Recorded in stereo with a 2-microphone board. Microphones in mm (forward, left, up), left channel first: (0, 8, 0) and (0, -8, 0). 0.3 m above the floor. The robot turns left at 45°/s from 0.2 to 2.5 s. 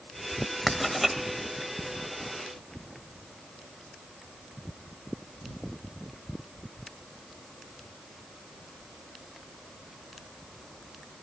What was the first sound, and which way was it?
Writing, centre (ahead or behind).